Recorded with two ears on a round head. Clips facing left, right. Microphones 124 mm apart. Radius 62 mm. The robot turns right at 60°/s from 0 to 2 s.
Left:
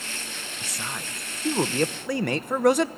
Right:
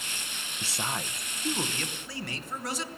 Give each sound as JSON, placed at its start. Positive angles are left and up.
{"t": 0.6, "sound": "a man speaking", "azimuth_deg": -35, "distance_m": 0.9}